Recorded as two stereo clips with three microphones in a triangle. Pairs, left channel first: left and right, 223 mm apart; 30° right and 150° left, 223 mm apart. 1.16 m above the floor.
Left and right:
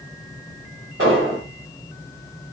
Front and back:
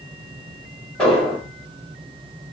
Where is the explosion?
115° right, 2.5 m.